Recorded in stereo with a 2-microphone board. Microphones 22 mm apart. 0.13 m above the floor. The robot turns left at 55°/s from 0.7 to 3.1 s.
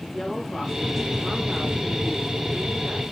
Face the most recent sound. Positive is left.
turn(degrees=-105)